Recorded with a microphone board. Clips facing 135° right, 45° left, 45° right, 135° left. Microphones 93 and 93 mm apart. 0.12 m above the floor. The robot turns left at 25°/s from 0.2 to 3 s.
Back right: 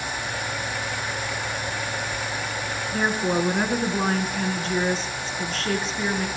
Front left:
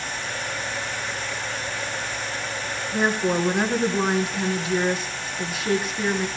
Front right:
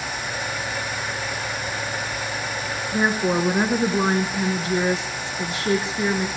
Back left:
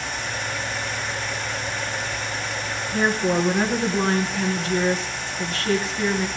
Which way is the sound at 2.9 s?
20° right.